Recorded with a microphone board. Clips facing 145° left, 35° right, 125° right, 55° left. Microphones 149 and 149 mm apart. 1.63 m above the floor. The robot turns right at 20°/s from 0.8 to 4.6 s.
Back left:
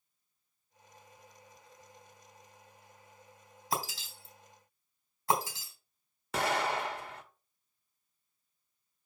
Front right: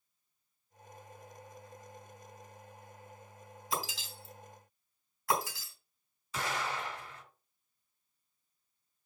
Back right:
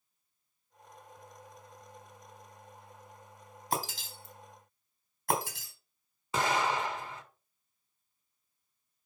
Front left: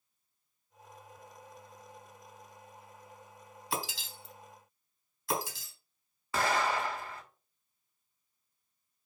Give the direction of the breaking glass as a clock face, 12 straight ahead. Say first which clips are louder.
Back left 2 dB, back right 3 dB; 6 o'clock.